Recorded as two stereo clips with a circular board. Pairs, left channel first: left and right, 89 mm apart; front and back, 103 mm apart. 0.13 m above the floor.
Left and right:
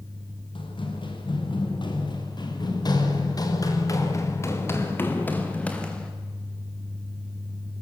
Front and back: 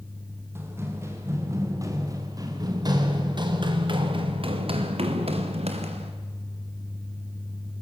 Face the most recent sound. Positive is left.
turn(degrees=170)